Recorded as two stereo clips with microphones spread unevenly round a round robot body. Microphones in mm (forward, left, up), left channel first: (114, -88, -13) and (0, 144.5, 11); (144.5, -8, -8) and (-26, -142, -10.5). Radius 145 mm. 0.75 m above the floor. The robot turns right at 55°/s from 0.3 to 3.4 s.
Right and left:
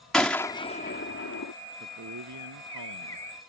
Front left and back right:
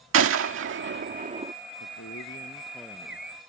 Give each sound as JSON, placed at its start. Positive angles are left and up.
{"t": 0.1, "sound": "a gunshot", "azimuth_deg": -150}
{"t": 1.8, "sound": "a man speaking", "azimuth_deg": 70}